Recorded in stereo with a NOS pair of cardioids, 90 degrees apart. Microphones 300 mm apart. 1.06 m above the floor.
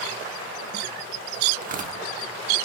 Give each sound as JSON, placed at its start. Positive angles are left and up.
{"t": 1.6, "sound": "tearing paper", "azimuth_deg": -30, "distance_m": 1.2}